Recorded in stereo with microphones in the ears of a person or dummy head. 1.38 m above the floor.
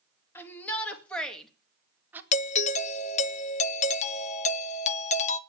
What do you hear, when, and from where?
0.3 s a shout: 15° left (ahead or behind), 2.5 m; by 2.2 s 10° right (ahead or behind), 1.7 m
2.3 s a doorbell: 45° left (ahead or behind), 0.7 m